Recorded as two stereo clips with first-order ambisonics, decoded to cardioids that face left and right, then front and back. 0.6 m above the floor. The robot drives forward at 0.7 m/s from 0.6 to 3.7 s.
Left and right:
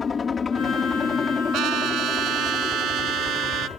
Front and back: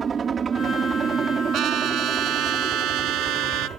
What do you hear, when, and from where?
0.0 s a helicopter: 140° left; by 3.8 s 145° left
1.5 s a trumpet: 130° right; by 3.7 s 145° right